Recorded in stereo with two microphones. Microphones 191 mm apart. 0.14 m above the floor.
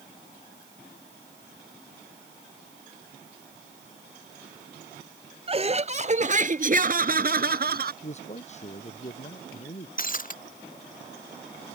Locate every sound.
5.5 s laughter: 30° right (ahead or behind); by 7.9 s 55° right (ahead or behind)
8.0 s a man speaking: 35° left (ahead or behind)
10.0 s breaking glass: 45° left (ahead or behind)